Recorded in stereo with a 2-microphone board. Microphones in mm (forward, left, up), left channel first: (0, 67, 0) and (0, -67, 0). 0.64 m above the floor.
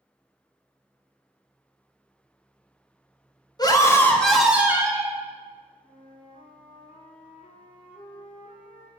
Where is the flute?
65° left (ahead or behind), 1.5 m.